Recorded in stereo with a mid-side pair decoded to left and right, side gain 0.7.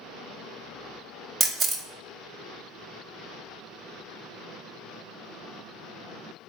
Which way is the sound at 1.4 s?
30° right.